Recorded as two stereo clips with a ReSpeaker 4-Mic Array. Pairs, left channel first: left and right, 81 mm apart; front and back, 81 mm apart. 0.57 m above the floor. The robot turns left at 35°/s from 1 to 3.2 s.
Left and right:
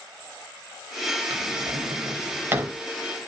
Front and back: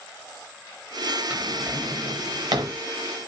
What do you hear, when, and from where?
1.3 s a drawer: 110° right, 0.6 m; by 2.8 s 160° right, 0.6 m